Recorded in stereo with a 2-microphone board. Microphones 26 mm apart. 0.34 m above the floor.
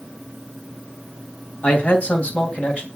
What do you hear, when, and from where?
1.6 s a man speaking: 60° left (ahead or behind), 3 m; by 2.9 s 50° left (ahead or behind), 2.5 m